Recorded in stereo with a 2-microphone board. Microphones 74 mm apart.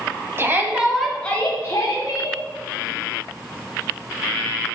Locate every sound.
0.4 s a shout: 35° right (ahead or behind), 1.3 m; by 2.4 s 55° left (ahead or behind), 1.8 m